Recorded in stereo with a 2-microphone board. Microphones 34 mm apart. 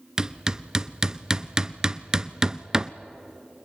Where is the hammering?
20° right (ahead or behind), 0.6 m.